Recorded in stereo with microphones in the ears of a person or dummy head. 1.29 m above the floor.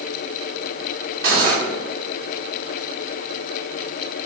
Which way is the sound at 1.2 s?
60° right (ahead or behind).